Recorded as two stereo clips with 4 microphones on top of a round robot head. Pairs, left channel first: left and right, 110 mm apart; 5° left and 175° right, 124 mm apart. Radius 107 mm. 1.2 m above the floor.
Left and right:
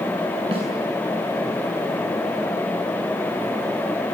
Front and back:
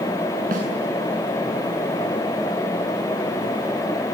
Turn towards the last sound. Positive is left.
turn(degrees=-140)